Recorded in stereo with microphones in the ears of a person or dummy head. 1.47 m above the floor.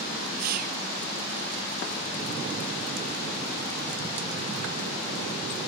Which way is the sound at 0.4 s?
50° right (ahead or behind).